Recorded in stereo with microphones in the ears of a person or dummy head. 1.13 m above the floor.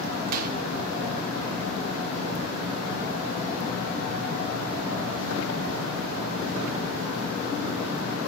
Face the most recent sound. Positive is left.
turn(degrees=-45)  # may be behind; listen again after turning